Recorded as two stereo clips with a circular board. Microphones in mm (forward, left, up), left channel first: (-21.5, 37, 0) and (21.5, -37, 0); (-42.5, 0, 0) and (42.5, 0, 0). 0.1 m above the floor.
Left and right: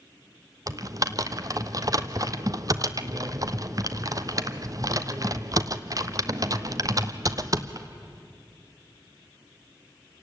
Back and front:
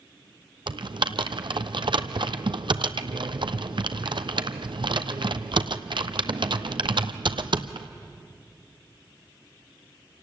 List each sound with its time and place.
0.7 s typing on a keyboard: 15° right, 0.8 m